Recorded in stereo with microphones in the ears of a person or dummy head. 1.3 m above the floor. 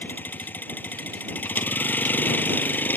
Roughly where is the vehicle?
Centre.